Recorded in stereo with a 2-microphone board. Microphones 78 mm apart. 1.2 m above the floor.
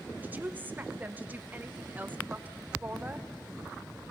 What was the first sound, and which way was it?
A woman speaking, 20° right (ahead or behind).